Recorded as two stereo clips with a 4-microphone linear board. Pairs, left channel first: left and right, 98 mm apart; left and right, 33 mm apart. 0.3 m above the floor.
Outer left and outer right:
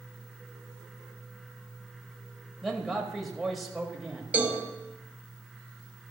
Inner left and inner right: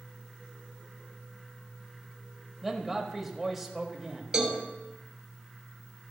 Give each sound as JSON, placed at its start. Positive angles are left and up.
{"t": 2.6, "sound": "a man speaking", "side_deg": 0, "distance_m": 1.3}
{"t": 4.3, "sound": "a cowbell", "side_deg": -15, "distance_m": 1.3}